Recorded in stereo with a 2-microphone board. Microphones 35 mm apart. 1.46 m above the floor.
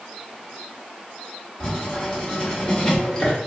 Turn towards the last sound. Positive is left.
turn(degrees=20)  # may be behind; listen again after turning